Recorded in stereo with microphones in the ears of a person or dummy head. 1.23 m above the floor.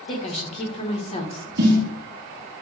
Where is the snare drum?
55° right (ahead or behind), 1.6 m.